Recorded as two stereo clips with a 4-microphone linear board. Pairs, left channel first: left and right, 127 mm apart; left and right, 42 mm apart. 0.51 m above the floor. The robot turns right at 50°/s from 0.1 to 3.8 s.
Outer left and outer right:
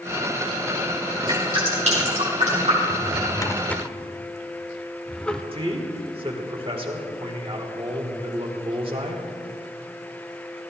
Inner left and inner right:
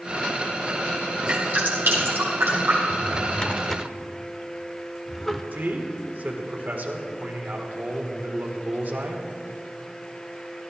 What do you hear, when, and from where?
1.3 s dripping: 35° right (ahead or behind), 5 m; by 2.8 s 60° right (ahead or behind), 5 m
2.9 s a drawer: 45° left (ahead or behind), 0.7 m; by 5.4 s 5° left (ahead or behind), 0.7 m
5.5 s a man speaking: 45° right (ahead or behind), 1.6 m